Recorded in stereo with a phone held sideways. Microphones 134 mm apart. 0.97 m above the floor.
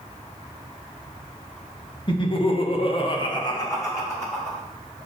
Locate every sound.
2.1 s laughter: 35° left (ahead or behind), 1.0 m; by 4.6 s 15° left (ahead or behind), 1.9 m